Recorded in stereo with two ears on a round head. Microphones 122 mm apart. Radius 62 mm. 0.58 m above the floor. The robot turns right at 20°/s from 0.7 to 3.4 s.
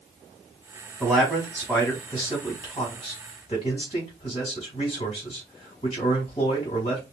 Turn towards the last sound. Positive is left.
turn(degrees=30)